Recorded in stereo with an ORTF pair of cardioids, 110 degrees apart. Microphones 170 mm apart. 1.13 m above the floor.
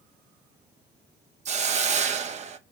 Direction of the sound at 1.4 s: 40° right.